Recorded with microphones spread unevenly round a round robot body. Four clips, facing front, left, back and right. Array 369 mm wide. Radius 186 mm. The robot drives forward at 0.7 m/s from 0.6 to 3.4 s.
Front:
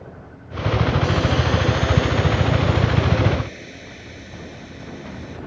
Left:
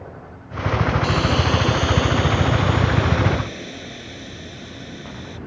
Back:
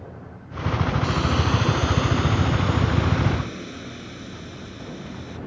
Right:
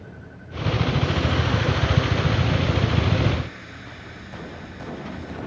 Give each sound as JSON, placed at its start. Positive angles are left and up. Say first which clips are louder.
{"t": 1.0, "sound": "a hiss", "louder": "left 4 dB, front 3 dB", "azimuth_deg": 145}